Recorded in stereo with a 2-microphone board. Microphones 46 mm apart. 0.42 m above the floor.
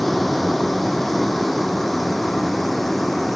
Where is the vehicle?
Centre (ahead or behind); by 3.4 s 5° left (ahead or behind).